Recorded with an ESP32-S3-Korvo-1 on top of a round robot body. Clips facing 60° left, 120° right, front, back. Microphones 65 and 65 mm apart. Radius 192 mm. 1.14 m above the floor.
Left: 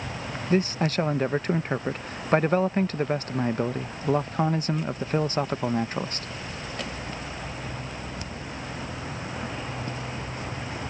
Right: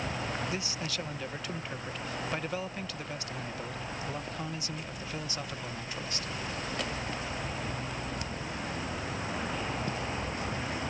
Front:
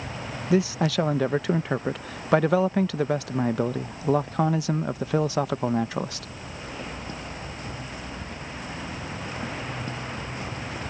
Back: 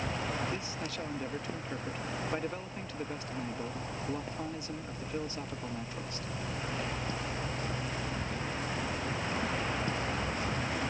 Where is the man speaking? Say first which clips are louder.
Left 12 dB, front 15 dB; 10° left.